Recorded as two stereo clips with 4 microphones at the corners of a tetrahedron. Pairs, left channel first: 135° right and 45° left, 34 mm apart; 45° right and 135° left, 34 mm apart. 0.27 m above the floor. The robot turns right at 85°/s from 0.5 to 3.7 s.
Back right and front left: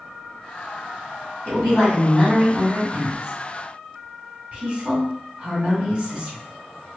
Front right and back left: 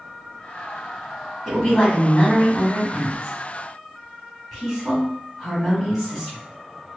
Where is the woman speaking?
140° right, 1.8 m; by 6.4 s 50° left, 1.8 m.